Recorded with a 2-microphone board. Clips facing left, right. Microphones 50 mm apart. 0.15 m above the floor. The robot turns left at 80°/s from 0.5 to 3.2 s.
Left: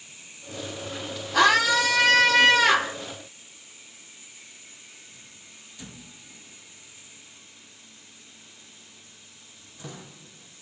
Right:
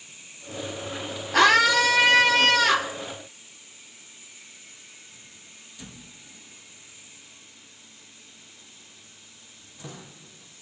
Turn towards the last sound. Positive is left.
turn(degrees=115)